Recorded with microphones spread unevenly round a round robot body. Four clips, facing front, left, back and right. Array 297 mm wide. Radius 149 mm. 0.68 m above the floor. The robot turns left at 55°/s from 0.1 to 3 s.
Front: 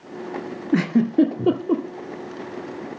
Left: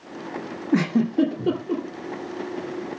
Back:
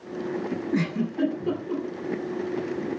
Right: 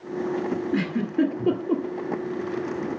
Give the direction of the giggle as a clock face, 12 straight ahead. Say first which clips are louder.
Left 7 dB, front 11 dB; 11 o'clock.